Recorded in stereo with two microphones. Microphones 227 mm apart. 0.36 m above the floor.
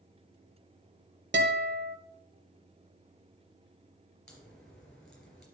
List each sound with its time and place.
1.3 s a guitar: 50° right (ahead or behind), 1.3 m
4.3 s a crack: 5° left (ahead or behind), 4 m